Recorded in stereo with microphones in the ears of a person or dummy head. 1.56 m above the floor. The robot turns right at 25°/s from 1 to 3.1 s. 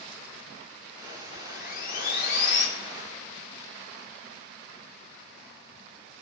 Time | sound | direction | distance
1.3 | sawing | 55° left | 1.9 m